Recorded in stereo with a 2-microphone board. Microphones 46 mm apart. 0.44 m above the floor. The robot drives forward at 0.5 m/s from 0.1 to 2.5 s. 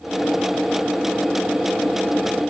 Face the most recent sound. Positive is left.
No sound to turn to.